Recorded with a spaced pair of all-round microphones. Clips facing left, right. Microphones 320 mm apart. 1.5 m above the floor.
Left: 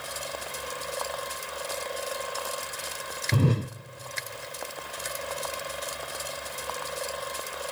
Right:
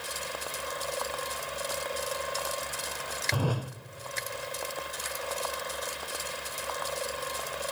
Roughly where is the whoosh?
Left.